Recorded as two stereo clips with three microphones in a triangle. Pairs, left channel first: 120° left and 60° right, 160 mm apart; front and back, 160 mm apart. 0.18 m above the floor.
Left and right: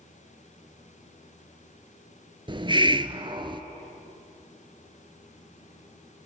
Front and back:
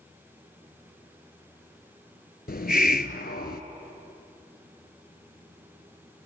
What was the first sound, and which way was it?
A hiss, straight ahead.